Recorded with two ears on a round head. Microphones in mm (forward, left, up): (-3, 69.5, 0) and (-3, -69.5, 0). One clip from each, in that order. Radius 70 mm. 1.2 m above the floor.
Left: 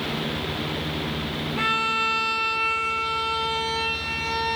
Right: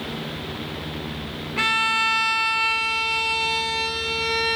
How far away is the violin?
About 0.7 m.